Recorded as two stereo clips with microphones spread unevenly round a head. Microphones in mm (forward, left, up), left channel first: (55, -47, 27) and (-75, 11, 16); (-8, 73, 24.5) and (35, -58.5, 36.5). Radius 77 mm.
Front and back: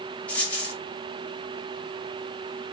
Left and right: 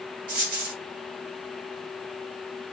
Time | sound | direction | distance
0.3 | a dropped coin | 100° right | 1.2 m